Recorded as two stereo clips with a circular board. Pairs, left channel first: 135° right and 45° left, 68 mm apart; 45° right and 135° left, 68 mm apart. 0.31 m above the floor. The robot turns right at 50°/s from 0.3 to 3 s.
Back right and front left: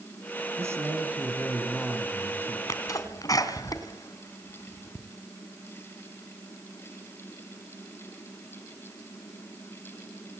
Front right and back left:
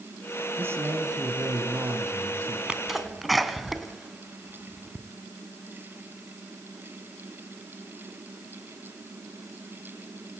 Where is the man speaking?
85° left, 3.5 m; by 2.6 s 175° right, 3.5 m.